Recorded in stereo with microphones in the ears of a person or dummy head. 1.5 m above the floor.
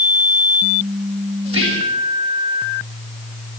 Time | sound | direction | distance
1.4 | whispering | 35° right (ahead or behind) | 3 m